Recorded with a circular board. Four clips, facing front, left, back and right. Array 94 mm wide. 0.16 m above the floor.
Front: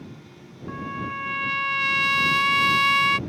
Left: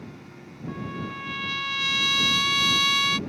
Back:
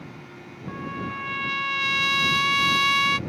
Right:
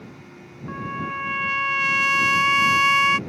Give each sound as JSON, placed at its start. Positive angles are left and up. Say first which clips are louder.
{"t": 0.7, "sound": "a trumpet", "louder": "right 4 dB, front 1 dB", "azimuth_deg": -75}